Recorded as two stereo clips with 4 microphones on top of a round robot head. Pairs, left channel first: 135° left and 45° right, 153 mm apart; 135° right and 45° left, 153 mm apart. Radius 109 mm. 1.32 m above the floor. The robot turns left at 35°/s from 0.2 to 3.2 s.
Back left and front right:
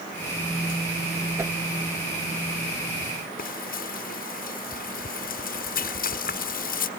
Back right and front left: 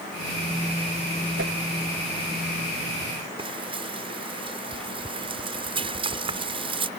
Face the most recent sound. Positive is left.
turn(degrees=105)